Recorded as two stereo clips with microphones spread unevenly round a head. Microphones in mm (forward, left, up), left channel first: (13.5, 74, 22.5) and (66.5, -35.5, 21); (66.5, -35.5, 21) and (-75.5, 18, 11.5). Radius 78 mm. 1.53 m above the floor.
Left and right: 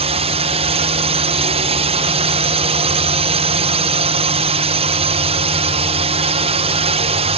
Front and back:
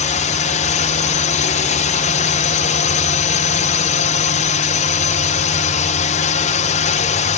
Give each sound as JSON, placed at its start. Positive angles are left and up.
{"t": 0.0, "sound": "a drone", "azimuth_deg": -50}